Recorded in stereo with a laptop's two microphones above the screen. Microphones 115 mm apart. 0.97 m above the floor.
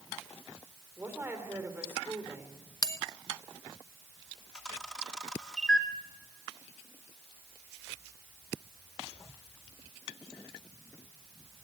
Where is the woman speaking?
20° right (ahead or behind), 3.5 m.